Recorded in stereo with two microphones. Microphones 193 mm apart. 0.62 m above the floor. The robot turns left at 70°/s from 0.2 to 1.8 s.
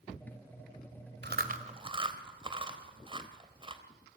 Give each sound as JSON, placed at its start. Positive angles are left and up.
{"t": 1.2, "sound": "chewing", "side_deg": -65, "distance_m": 2.5}